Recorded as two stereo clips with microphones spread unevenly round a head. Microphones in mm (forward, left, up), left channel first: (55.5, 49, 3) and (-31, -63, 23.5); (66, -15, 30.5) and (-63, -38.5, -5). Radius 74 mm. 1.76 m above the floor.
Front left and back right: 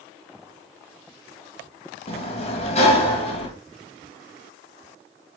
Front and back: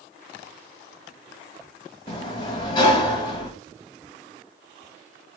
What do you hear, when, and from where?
2.1 s a sliding door: 15° left, 2 m